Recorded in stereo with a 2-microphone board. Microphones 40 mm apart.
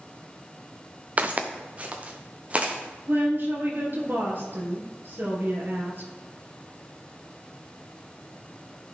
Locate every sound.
1.2 s footsteps: 35° right (ahead or behind), 1.1 m; by 2.7 s 30° right (ahead or behind), 2.5 m
3.1 s a woman speaking: 55° right (ahead or behind), 3 m